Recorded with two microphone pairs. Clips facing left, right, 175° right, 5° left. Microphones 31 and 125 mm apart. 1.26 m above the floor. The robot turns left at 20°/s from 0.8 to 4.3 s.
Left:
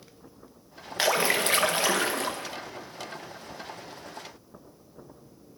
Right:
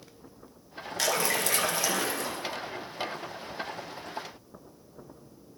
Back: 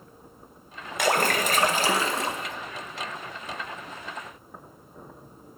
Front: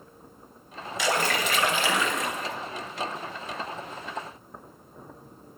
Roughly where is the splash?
Behind left.